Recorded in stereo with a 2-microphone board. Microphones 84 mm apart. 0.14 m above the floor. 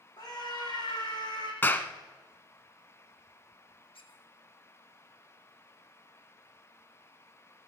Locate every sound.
0.2 s a scream: 55° left (ahead or behind), 7.5 m
1.6 s a clap: 25° left (ahead or behind), 0.9 m
3.9 s a squeak: 85° left, 1.5 m